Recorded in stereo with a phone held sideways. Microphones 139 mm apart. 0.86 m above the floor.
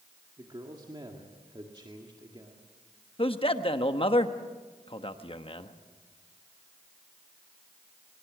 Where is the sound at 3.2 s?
40° left (ahead or behind), 1.2 m.